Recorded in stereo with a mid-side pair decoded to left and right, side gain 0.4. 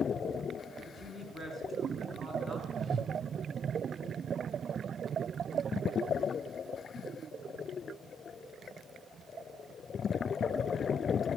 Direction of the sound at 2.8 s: 45° right.